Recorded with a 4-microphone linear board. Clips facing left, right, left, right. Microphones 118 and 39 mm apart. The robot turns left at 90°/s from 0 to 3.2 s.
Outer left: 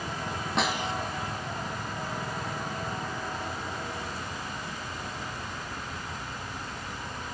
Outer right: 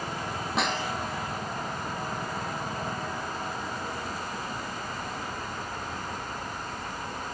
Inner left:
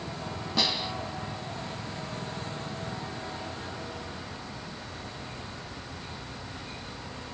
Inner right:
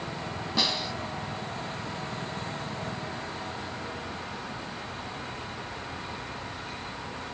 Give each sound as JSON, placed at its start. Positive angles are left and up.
{"t": 0.6, "sound": "a snare drum", "azimuth_deg": 180, "distance_m": 1.7}